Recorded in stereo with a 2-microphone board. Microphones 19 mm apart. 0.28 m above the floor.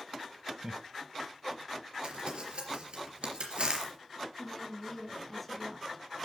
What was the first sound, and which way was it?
Laughter, 20° right (ahead or behind).